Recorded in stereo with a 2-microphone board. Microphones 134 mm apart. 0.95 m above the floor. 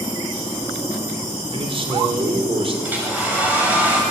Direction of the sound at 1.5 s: 45° right (ahead or behind).